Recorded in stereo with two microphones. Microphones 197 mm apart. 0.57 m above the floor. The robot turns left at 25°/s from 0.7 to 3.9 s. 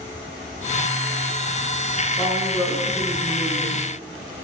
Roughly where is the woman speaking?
Ahead left.